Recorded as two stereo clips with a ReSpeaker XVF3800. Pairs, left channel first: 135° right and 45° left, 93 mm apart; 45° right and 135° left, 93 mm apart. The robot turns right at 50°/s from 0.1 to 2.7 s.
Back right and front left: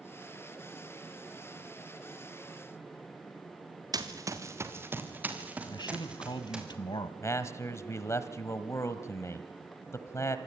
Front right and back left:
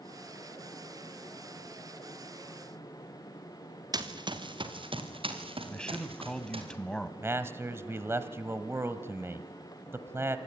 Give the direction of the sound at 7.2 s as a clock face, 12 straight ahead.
6 o'clock.